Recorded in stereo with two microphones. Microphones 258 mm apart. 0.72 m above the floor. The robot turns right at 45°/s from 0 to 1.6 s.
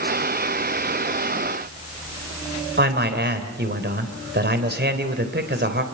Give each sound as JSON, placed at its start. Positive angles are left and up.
{"t": 2.8, "sound": "a man speaking", "side_deg": -40, "distance_m": 3.5}